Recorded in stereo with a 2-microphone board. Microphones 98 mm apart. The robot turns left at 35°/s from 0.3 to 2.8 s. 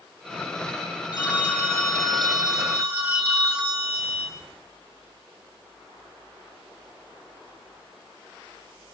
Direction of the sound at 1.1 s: 45° left.